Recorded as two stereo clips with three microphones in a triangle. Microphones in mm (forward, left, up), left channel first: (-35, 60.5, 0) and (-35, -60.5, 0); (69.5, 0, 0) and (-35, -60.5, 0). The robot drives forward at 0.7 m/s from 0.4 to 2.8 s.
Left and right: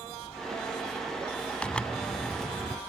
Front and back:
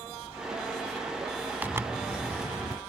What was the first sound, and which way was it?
A zipper, 160° left.